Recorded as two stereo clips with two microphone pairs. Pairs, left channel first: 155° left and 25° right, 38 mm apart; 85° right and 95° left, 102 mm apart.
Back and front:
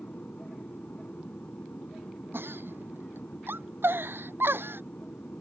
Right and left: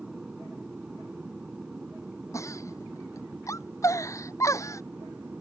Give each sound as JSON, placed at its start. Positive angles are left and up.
{"t": 0.0, "sound": "an aircraft", "azimuth_deg": 175}
{"t": 2.3, "sound": "a giggle", "azimuth_deg": -25}